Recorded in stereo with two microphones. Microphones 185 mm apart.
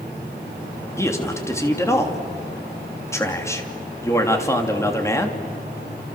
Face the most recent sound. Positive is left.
turn(degrees=15)  # may be behind; listen again after turning